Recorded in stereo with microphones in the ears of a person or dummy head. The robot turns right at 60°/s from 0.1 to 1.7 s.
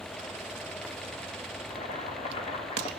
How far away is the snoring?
No snoring in this recording.